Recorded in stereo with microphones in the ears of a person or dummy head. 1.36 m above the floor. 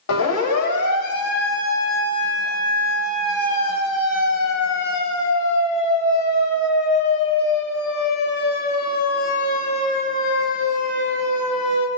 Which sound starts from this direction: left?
A siren, at 0.1 s.